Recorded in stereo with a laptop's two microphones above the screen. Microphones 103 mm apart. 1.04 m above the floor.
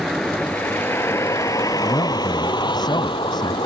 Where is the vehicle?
Centre (ahead or behind); by 3.7 s 55° left (ahead or behind).